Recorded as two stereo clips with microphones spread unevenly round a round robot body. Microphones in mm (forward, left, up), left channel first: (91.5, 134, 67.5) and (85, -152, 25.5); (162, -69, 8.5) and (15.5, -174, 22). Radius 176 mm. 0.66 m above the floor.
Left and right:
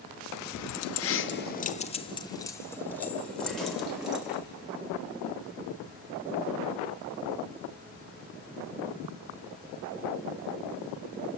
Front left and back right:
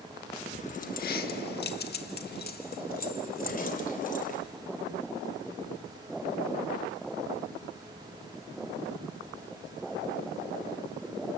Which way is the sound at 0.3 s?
95° left.